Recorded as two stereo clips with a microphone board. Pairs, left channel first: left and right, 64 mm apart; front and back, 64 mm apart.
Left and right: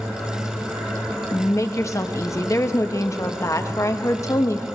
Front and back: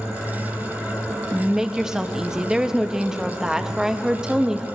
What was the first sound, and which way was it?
A woman speaking, 105° left.